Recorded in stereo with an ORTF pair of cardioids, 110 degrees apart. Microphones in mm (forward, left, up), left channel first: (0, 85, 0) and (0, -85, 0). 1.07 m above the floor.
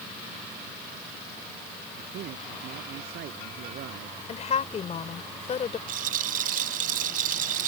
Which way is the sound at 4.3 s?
40° left.